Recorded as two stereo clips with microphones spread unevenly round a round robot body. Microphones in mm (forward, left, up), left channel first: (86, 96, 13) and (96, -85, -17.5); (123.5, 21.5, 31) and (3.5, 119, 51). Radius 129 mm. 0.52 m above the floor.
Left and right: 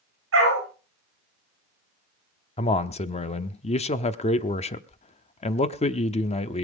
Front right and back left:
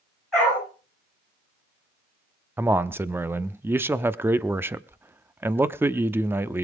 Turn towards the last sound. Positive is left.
turn(degrees=65)